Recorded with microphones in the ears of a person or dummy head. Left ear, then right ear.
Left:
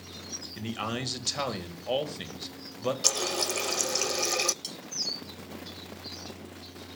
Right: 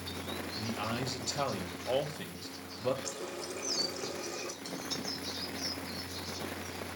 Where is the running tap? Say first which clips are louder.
Left 12 dB; 55° left (ahead or behind), 0.5 m.